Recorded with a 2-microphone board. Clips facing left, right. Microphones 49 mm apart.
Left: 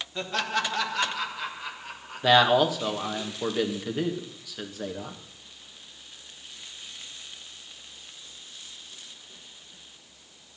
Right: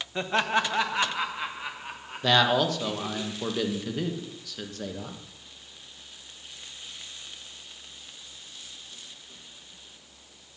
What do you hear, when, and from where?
0.1 s laughter: 25° right (ahead or behind), 1.2 m; by 3.2 s 20° right (ahead or behind), 3.5 m
2.2 s a man speaking: 10° left (ahead or behind), 1.4 m